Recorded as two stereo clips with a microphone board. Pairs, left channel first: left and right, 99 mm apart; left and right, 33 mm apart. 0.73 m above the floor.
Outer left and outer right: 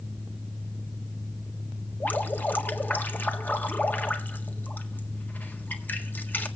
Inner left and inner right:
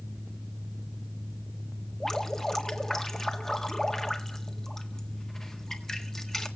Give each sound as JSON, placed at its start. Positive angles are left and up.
{"t": 2.0, "sound": "dripping", "side_deg": 15, "distance_m": 1.6}